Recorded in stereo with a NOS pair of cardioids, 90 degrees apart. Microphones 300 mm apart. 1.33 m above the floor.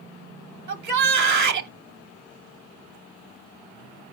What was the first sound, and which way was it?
A shout, 70° right.